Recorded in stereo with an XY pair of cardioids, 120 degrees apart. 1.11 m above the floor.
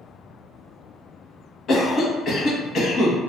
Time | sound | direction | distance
1.7 | a cough | 45° left | 1.0 m